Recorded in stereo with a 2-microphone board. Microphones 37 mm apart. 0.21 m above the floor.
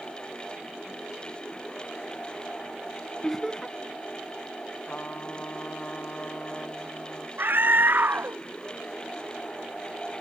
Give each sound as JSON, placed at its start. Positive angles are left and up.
{"t": 3.2, "sound": "laughter", "side_deg": 10}
{"t": 4.8, "sound": "a trumpet", "side_deg": 50}
{"t": 7.4, "sound": "a scream", "side_deg": -65}